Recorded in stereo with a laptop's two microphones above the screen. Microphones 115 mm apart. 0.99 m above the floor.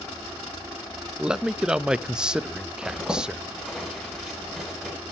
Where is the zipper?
5° right (ahead or behind), 8 m.